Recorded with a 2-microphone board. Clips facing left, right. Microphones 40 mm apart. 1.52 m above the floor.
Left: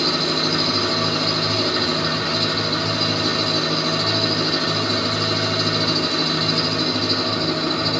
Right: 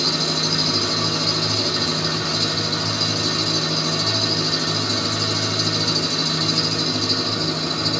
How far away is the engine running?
About 1.3 m.